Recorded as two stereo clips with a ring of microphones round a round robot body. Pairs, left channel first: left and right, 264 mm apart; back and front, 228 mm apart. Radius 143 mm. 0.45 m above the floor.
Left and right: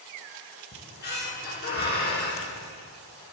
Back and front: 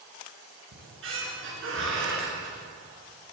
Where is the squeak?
35° left, 4.5 m.